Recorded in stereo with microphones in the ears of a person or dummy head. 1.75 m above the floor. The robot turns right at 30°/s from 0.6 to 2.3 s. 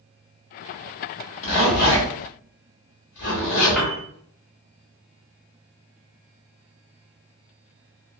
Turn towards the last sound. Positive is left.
turn(degrees=5)  # may be behind; listen again after turning